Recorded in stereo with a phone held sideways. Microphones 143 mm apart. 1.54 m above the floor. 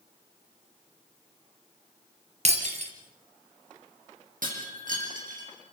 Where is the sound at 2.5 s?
50° right (ahead or behind), 4 m.